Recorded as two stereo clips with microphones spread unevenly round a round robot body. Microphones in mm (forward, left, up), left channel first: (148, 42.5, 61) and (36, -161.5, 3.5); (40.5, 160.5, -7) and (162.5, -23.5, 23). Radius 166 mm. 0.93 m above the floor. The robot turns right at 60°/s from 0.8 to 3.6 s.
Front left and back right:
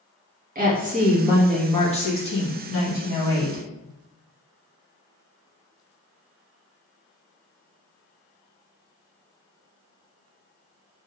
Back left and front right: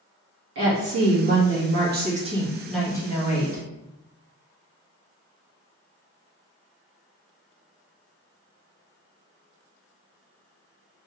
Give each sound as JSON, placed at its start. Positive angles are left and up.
{"t": 0.6, "sound": "a woman speaking", "azimuth_deg": -75, "distance_m": 1.3}